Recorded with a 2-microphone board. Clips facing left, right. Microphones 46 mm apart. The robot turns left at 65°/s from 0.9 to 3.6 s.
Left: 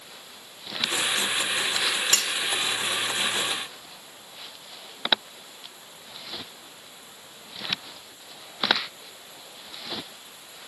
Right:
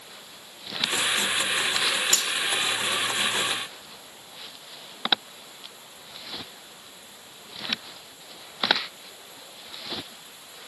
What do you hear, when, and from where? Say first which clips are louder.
2.1 s cutlery clinking: left 1 dB; 75° left (ahead or behind)